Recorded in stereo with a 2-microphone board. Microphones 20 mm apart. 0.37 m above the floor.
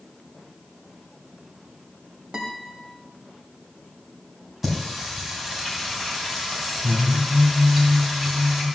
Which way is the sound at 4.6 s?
5° right (ahead or behind).